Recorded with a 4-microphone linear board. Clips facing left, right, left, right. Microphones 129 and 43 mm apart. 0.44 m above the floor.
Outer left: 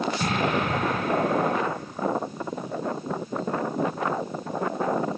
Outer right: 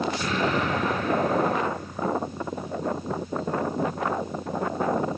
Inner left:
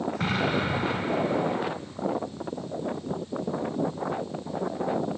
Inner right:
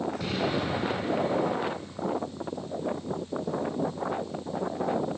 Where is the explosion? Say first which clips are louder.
Outer left 1 dB, inner left 5 dB; 60° left (ahead or behind), 3.5 m.